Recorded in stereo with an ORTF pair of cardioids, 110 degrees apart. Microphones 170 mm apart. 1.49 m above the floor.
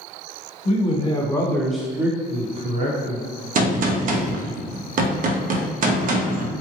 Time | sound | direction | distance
0.7 | a man speaking | 40° left | 1.2 m
3.5 | a gunshot | 50° right | 0.6 m